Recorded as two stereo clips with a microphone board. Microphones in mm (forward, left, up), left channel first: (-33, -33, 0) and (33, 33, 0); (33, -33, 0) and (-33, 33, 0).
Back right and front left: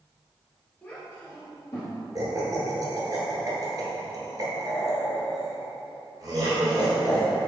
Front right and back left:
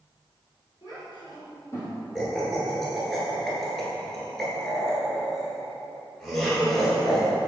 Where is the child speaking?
60° right, 2.0 m; by 1.9 s 95° right, 1.9 m.